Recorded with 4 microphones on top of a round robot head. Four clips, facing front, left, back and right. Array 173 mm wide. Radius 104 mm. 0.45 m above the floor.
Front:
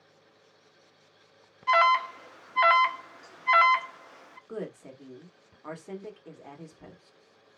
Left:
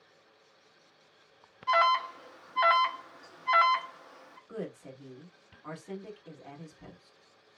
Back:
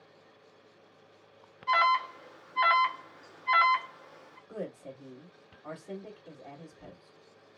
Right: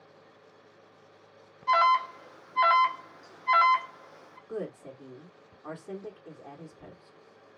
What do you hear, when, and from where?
1.7 s an alarm: 15° right, 0.8 m
4.5 s a woman speaking: 45° right, 1.6 m